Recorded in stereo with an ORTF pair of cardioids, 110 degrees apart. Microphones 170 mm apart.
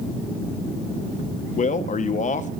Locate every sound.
1.6 s a man speaking: 50° left, 0.9 m